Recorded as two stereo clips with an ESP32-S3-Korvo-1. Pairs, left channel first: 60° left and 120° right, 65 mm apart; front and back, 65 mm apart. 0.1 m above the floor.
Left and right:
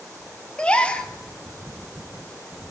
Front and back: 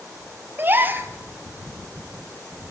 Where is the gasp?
130° left, 1.5 m.